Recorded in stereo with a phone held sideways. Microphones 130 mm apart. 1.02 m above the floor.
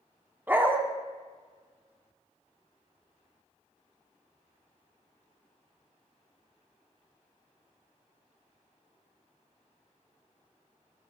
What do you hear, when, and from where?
0.5 s a dog barking: 15° right (ahead or behind), 0.7 m